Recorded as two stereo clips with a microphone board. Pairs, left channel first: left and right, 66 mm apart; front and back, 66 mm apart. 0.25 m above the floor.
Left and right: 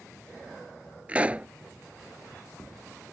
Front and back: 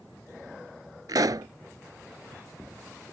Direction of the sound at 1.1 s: 160° right.